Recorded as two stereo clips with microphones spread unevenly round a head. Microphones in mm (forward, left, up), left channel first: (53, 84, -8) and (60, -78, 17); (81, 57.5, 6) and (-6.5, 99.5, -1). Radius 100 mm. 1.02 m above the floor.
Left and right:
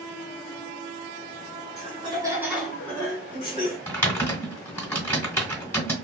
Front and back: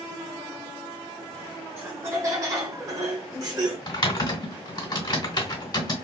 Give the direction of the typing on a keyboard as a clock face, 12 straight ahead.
12 o'clock.